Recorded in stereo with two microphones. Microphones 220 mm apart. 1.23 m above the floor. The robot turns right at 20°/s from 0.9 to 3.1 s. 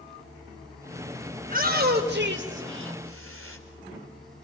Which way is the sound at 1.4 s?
35° right (ahead or behind).